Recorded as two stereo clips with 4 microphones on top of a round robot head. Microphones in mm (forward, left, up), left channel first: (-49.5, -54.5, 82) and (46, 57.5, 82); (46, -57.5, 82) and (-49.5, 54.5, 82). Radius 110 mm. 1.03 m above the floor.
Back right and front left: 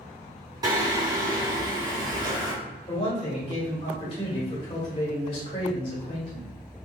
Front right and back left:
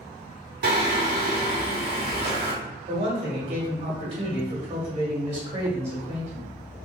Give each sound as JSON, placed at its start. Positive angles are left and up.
{"t": 0.6, "sound": "singing", "azimuth_deg": 115, "distance_m": 1.1}
{"t": 2.9, "sound": "a man speaking", "azimuth_deg": 175, "distance_m": 1.6}